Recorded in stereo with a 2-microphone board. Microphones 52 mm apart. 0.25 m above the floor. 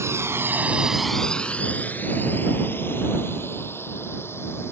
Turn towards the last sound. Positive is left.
turn(degrees=50)  # may be behind; listen again after turning